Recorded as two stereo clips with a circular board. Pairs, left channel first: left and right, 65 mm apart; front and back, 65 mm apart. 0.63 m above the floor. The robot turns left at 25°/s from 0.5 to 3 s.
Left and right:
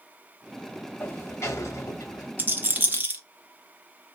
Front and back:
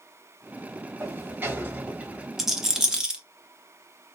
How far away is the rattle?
About 0.7 m.